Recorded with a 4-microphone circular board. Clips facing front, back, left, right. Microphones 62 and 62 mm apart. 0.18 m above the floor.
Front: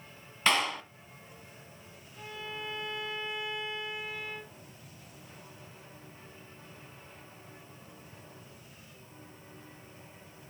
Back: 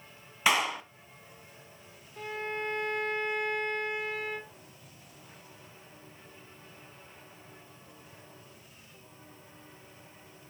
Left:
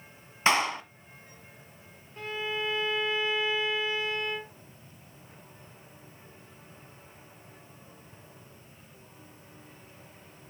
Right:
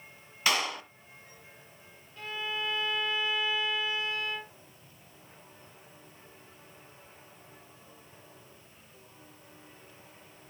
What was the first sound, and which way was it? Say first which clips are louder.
A clap: back 1 dB, left 5 dB; 105° left.